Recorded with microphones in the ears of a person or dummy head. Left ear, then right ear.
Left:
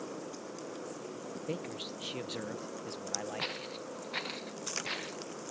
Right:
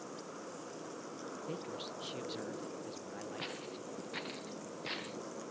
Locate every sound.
1.5 s a man speaking: 30° left (ahead or behind)
3.4 s footsteps: 15° left (ahead or behind); by 5.2 s centre (ahead or behind)